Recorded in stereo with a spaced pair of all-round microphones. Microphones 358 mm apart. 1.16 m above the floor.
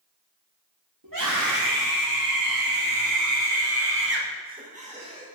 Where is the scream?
60° right (ahead or behind), 2.5 m; by 5.3 s 15° right (ahead or behind), 3 m.